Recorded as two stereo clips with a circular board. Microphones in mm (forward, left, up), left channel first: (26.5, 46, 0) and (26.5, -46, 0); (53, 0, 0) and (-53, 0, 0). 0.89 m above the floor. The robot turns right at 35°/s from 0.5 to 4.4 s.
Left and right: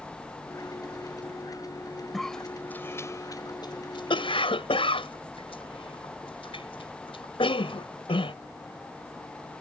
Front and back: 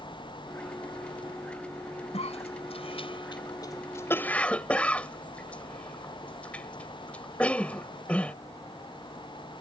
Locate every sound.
2.1 s a cough: straight ahead; by 8.3 s 80° left